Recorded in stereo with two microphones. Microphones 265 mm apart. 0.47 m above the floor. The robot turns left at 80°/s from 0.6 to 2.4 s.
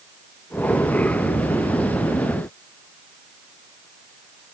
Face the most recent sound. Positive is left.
No sound to turn to.